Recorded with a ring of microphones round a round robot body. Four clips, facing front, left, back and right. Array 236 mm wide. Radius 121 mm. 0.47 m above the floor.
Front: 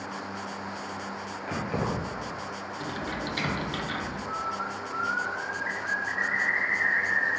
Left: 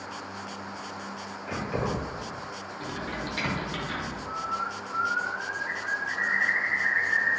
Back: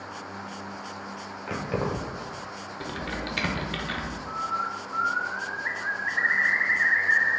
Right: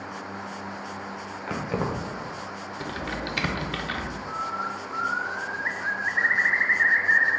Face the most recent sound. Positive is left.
turn(degrees=-125)